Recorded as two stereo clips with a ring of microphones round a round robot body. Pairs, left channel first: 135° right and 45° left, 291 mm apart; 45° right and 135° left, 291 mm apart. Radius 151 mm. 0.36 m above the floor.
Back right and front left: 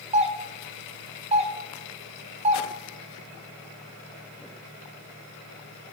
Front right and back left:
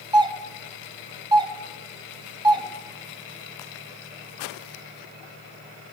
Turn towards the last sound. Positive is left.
turn(degrees=80)